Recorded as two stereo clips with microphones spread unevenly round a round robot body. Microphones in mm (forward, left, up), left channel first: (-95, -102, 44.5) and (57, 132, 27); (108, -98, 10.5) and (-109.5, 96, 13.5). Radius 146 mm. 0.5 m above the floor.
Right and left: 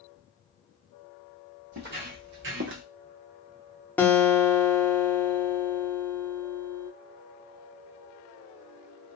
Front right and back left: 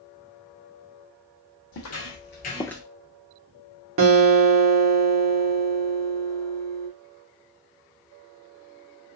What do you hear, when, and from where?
1.7 s footsteps: straight ahead, 1.4 m; by 2.8 s 65° left, 0.5 m
4.0 s a guitar: 155° left, 0.9 m